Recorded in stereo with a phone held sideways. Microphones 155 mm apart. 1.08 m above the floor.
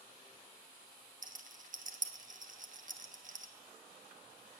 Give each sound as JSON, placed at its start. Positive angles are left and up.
{"t": 1.2, "sound": "a rattle", "side_deg": -55, "distance_m": 1.3}